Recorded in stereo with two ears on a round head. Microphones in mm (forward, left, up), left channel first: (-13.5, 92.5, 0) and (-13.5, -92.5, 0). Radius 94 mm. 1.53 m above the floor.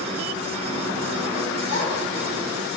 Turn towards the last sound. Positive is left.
turn(degrees=85)